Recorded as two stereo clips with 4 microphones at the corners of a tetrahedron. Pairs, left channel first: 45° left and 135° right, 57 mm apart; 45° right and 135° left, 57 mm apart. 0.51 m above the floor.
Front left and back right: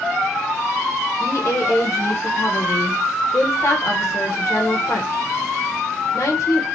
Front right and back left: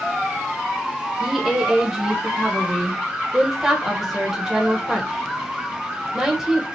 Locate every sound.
1.2 s a woman speaking: 50° left, 1.7 m